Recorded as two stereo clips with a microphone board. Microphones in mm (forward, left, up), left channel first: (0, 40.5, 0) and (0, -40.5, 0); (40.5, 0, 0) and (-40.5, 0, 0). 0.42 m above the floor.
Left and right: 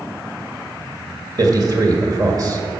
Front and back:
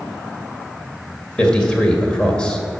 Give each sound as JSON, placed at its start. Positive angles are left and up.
{"t": 1.4, "sound": "a man speaking", "azimuth_deg": -75, "distance_m": 2.0}